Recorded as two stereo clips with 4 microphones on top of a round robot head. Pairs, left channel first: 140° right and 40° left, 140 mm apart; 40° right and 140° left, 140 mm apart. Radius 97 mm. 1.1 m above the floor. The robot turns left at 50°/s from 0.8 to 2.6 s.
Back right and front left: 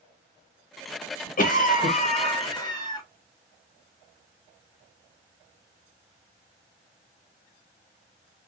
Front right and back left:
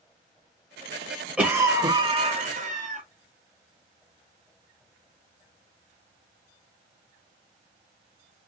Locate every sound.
1.4 s a cough: 135° right, 1.8 m; by 3.0 s 160° left, 1.8 m